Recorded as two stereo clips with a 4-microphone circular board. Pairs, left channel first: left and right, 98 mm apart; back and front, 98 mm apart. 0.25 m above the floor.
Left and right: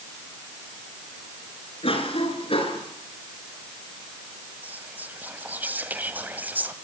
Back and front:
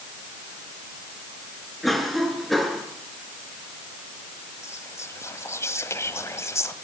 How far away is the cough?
About 4 m.